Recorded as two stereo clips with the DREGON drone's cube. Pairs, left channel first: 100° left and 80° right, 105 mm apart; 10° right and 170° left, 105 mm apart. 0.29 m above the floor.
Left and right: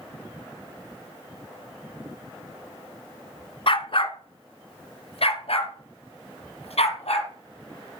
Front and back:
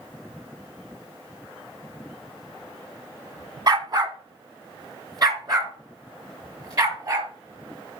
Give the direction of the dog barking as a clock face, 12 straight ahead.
8 o'clock.